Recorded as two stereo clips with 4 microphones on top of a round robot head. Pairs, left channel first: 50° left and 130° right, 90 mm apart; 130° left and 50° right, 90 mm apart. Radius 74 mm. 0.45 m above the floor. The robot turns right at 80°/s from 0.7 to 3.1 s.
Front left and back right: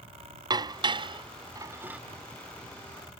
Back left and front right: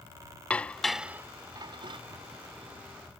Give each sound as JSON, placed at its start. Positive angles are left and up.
{"t": 0.5, "sound": "dishes clattering", "azimuth_deg": -155}